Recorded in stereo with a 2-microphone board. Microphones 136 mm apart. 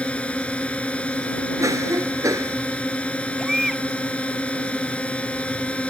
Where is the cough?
25° right (ahead or behind).